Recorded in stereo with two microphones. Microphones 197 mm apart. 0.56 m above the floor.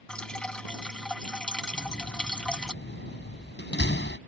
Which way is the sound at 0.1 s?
5° left (ahead or behind).